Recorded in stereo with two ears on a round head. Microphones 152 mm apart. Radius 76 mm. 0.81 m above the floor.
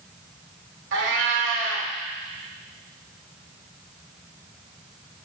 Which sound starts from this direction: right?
A cat meowing, at 0.9 s.